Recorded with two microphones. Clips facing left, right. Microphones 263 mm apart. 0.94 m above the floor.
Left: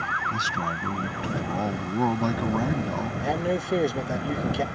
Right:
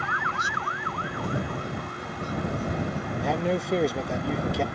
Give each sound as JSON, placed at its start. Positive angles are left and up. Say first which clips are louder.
{"t": 0.3, "sound": "a man speaking", "louder": "left 4 dB", "side_deg": 85}
{"t": 3.2, "sound": "a man speaking", "louder": "right 1 dB", "side_deg": 0}